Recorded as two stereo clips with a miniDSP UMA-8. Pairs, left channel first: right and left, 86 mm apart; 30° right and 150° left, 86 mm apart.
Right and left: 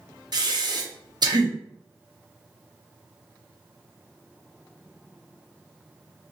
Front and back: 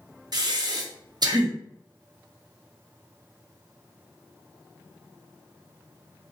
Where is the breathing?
120° left, 0.5 m.